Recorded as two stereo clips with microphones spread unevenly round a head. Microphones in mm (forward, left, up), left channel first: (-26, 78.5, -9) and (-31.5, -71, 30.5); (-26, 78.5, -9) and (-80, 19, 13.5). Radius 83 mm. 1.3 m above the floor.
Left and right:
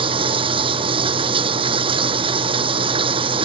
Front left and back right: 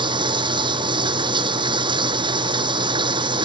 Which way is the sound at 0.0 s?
145° right.